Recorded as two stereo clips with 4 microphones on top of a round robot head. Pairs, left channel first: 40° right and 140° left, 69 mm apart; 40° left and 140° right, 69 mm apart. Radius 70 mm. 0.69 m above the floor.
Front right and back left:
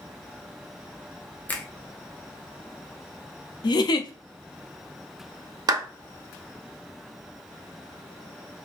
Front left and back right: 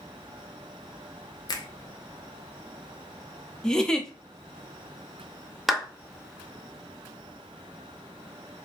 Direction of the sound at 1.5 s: 20° left.